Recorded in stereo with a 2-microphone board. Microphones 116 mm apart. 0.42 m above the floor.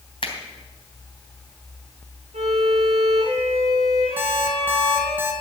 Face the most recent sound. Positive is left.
turn(degrees=-15)  # may be behind; listen again after turning